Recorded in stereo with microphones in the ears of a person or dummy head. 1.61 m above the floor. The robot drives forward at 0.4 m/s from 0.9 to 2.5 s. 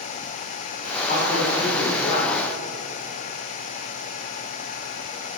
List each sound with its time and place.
1.1 s a man speaking: 45° left (ahead or behind), 3 m; by 2.3 s 40° left (ahead or behind), 3.5 m